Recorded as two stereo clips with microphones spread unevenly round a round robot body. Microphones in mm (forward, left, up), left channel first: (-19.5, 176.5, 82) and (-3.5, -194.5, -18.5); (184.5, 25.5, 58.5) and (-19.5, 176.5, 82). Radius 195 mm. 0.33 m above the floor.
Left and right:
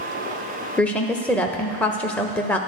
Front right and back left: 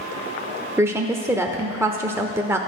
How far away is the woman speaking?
About 0.9 m.